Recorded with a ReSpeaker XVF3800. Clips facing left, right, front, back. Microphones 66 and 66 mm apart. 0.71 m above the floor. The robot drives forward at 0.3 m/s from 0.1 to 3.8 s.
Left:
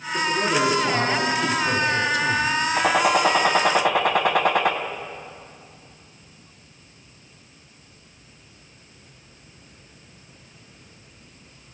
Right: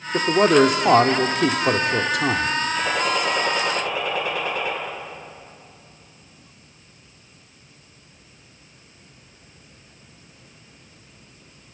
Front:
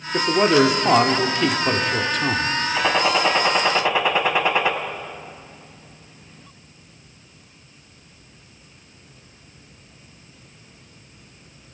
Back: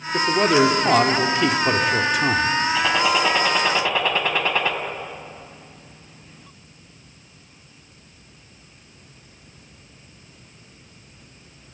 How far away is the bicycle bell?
No bicycle bell in this recording.